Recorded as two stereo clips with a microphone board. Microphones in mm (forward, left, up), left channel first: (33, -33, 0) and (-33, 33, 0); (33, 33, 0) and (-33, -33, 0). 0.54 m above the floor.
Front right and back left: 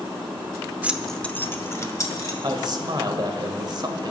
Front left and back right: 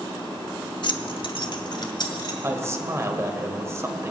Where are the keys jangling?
65° left, 0.9 m; by 2.3 s 5° left, 2.5 m.